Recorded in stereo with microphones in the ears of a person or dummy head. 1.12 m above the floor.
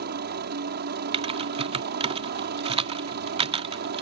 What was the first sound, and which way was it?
A helicopter, 50° right (ahead or behind).